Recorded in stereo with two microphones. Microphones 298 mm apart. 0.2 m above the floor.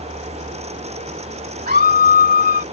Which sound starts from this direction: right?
A scream, at 1.7 s.